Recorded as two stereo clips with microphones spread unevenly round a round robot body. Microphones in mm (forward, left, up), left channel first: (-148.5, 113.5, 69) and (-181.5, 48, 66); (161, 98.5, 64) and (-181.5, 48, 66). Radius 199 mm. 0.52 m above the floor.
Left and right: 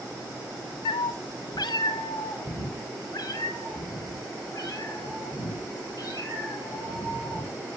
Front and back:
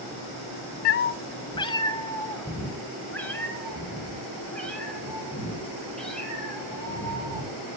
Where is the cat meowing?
60° left, 0.6 m; by 7.7 s 100° left, 8.5 m.